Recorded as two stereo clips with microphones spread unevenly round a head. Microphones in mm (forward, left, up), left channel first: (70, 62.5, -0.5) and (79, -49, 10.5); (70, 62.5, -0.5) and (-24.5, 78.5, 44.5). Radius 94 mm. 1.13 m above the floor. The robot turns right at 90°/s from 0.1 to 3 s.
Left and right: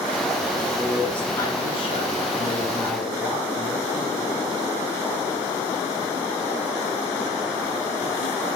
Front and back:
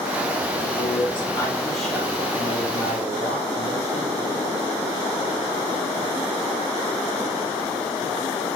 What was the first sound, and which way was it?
A man speaking, 30° right.